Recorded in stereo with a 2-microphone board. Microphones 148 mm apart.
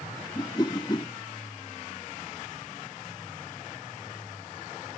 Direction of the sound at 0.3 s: 30° left (ahead or behind).